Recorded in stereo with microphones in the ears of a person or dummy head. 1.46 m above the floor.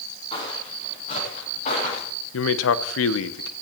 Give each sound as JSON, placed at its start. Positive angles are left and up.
{"t": 0.3, "sound": "footsteps", "side_deg": 30, "distance_m": 7.5}
{"t": 2.3, "sound": "a man speaking", "side_deg": 75, "distance_m": 0.8}